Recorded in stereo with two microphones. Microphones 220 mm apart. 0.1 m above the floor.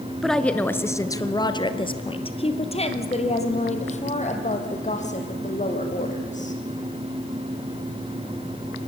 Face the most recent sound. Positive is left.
turn(degrees=35)  # may be behind; listen again after turning